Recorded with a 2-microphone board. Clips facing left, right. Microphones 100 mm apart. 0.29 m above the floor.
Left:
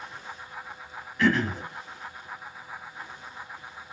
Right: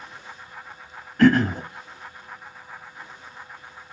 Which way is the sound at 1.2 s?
50° right (ahead or behind).